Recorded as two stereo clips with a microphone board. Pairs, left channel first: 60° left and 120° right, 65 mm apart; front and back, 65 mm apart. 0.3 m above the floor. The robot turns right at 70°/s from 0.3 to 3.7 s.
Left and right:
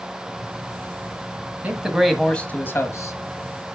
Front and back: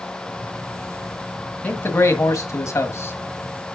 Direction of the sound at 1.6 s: 60° right.